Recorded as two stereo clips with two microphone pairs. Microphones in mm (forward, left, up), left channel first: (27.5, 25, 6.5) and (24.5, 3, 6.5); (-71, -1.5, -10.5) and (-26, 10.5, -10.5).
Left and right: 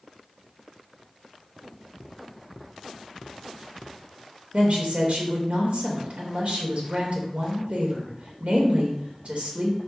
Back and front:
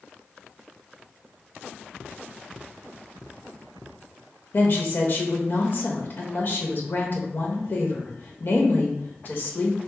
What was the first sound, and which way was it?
A woman speaking, 125° right.